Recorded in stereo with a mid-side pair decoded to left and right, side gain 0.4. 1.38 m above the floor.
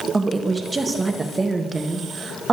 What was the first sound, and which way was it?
A woman speaking, 25° right.